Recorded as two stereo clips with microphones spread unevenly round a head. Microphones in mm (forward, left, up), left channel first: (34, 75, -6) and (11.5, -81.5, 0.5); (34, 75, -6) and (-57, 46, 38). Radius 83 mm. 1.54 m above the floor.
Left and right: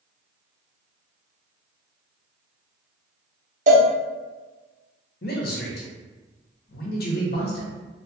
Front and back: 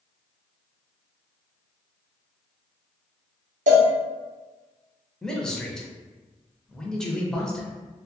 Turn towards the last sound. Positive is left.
turn(degrees=110)